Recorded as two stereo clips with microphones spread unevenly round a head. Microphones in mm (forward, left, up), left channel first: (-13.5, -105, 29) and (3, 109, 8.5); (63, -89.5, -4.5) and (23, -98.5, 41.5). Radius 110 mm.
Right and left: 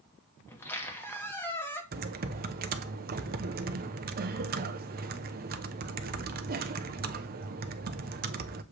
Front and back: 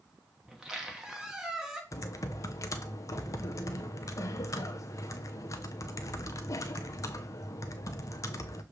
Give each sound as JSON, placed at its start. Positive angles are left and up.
{"t": 0.5, "sound": "a squeak", "azimuth_deg": -170, "distance_m": 1.0}
{"t": 1.9, "sound": "typing on a keyboard", "azimuth_deg": 35, "distance_m": 0.6}